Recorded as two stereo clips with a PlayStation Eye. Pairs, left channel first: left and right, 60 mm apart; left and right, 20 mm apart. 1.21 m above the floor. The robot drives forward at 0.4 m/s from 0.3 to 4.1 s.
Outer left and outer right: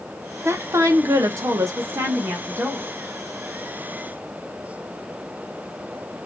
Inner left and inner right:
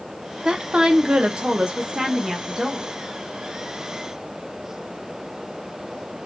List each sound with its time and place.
0.5 s a woman speaking: 45° right (ahead or behind), 0.7 m; by 2.9 s 35° right (ahead or behind), 0.9 m